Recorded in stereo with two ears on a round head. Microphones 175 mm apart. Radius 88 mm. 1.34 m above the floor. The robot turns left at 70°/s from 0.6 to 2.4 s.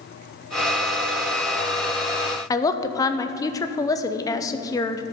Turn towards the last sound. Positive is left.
turn(degrees=20)  # may be behind; listen again after turning